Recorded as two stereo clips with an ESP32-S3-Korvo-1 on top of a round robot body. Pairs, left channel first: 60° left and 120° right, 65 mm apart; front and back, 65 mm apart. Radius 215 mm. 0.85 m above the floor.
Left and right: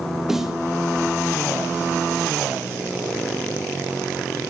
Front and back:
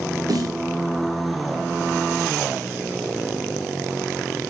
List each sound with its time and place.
0.3 s a snare drum: 160° left, 2.5 m